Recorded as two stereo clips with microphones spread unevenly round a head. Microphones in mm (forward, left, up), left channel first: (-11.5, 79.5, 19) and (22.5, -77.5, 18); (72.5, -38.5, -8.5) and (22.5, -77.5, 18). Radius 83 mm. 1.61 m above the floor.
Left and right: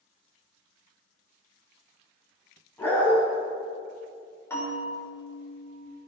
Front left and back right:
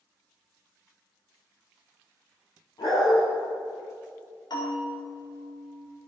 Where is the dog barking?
25° left, 6.5 m.